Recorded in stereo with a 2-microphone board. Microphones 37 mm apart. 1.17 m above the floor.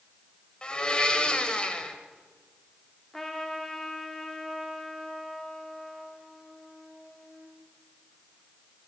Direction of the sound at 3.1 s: 10° left (ahead or behind).